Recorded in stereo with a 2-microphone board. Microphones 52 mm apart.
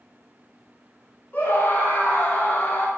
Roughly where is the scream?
Left.